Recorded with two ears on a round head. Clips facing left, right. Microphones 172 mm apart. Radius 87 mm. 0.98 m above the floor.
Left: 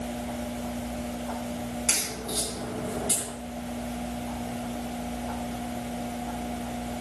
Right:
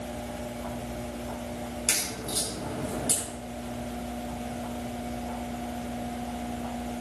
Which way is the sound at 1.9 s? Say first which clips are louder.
Left 1 dB; 30° right (ahead or behind).